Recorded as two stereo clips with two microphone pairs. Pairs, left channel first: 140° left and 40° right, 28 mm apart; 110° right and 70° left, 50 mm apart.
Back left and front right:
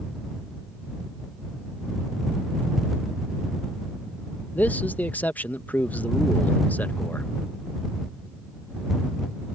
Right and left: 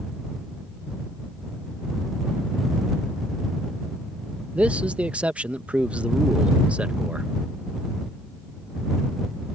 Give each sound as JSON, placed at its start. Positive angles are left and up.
{"t": 4.5, "sound": "a man speaking", "azimuth_deg": 130}